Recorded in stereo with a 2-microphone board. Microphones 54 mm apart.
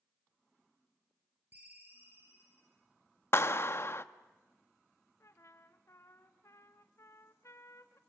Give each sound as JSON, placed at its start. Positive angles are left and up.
{"t": 1.5, "sound": "a ringtone", "side_deg": -40, "distance_m": 6.0}
{"t": 3.3, "sound": "a clap", "side_deg": 50, "distance_m": 0.7}
{"t": 5.2, "sound": "a trumpet", "side_deg": 60, "distance_m": 1.4}